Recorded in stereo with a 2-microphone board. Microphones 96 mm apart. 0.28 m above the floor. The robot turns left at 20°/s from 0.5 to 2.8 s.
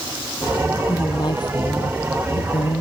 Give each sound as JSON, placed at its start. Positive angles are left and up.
{"t": 0.9, "sound": "a woman speaking", "azimuth_deg": 140}